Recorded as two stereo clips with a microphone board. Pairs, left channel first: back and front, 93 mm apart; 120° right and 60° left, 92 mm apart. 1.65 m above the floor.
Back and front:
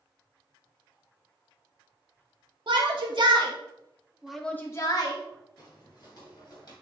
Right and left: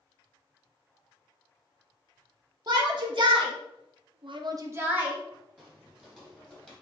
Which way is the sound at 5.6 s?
145° left.